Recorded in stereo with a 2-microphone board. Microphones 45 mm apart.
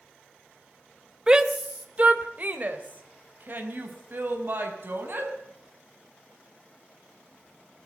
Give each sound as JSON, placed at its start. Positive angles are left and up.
{"t": 1.3, "sound": "a shout", "side_deg": -20, "distance_m": 1.8}